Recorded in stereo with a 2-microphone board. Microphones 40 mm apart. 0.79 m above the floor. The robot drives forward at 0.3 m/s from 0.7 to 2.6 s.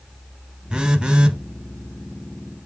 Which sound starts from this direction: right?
A phone buzzing, at 0.7 s.